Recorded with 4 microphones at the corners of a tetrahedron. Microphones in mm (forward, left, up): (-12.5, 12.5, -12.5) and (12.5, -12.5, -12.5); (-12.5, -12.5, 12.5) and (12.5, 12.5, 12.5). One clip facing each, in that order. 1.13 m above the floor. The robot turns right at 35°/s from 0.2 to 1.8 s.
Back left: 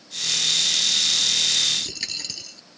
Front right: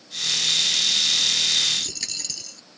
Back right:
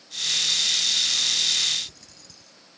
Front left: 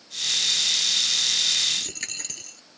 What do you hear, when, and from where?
1.7 s a dropped coin: 55° left; by 2.6 s 60° left